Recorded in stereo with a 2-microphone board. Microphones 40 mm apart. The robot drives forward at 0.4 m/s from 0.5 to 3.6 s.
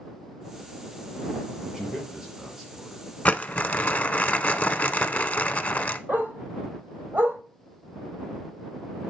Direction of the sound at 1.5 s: 15° right (ahead or behind).